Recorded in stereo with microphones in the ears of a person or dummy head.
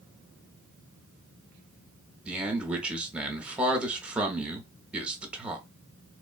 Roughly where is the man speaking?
Centre.